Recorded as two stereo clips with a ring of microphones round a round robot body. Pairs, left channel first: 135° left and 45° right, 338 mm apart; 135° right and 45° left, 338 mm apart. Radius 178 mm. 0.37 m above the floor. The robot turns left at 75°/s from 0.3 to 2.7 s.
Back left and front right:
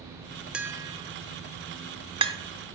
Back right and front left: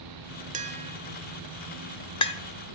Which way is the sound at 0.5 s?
35° left.